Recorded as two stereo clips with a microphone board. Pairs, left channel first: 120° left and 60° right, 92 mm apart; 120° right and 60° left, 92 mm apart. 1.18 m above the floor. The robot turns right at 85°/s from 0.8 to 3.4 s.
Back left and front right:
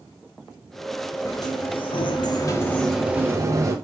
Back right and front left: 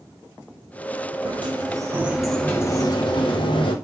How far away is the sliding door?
About 0.9 m.